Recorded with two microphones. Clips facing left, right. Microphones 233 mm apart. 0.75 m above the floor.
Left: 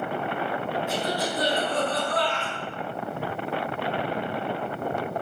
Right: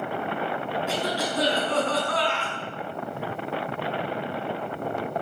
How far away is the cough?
About 6.5 m.